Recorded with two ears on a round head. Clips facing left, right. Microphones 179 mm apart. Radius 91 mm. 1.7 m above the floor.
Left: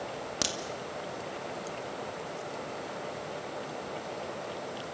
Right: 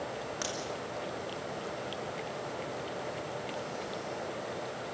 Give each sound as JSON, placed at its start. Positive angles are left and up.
{"t": 0.4, "sound": "a crack", "side_deg": 45, "distance_m": 2.5}